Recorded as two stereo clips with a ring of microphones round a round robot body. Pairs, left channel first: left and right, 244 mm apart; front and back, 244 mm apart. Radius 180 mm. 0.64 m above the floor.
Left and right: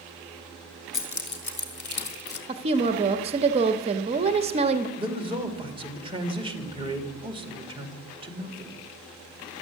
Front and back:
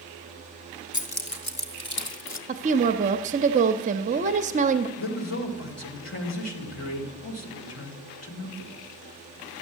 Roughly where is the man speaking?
Ahead.